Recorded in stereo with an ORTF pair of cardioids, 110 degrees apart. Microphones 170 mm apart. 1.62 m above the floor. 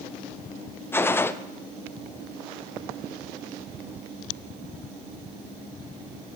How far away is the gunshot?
About 0.6 m.